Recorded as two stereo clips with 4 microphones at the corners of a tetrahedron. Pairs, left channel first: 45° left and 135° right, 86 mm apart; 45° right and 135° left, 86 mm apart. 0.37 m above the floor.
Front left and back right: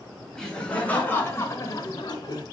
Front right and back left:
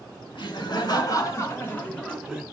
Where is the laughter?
35° right, 2.5 m; by 2.4 s 50° left, 1.7 m.